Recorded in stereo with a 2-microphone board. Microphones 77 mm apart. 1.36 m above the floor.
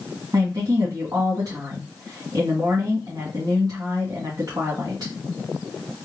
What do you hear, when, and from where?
0.3 s a woman speaking: 50° right (ahead or behind), 1.9 m